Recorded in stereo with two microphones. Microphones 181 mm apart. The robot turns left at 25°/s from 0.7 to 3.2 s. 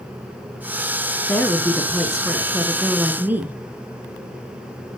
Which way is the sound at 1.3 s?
10° left (ahead or behind).